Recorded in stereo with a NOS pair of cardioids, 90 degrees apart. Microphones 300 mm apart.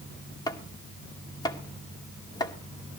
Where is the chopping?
15° left, 2 m.